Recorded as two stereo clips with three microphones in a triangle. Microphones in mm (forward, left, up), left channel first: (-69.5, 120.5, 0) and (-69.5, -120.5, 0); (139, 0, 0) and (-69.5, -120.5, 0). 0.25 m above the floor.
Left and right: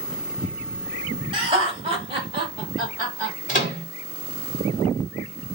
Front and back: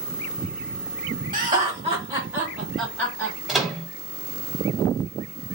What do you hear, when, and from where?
1.3 s laughter: 140° right, 1.6 m; by 3.4 s 30° right, 1.5 m
3.5 s a microwave: 120° left, 1.3 m